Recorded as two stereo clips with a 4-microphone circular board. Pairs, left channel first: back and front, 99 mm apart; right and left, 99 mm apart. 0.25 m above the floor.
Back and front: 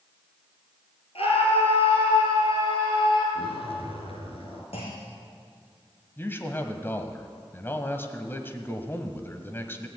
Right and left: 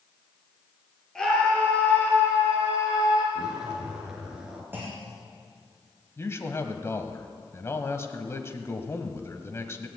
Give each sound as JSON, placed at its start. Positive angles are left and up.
{"t": 1.1, "sound": "a scream", "azimuth_deg": -175, "distance_m": 5.0}
{"t": 3.4, "sound": "a zipper", "azimuth_deg": 170, "distance_m": 2.5}
{"t": 4.7, "sound": "a clunk", "azimuth_deg": 160, "distance_m": 3.0}
{"t": 6.2, "sound": "a man speaking", "azimuth_deg": -130, "distance_m": 1.3}